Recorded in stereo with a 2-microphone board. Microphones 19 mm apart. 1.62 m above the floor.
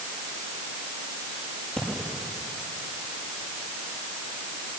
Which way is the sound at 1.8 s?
60° left (ahead or behind).